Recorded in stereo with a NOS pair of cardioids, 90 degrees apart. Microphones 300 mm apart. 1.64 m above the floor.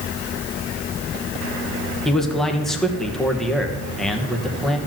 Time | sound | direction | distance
2.0 | a man speaking | straight ahead | 1.9 m